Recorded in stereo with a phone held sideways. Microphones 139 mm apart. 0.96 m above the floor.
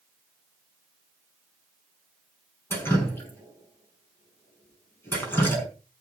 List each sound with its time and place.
2.7 s dripping: 15° left (ahead or behind), 5.5 m